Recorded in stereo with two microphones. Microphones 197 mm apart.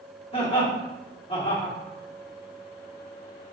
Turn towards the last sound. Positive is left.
turn(degrees=30)  # may be behind; listen again after turning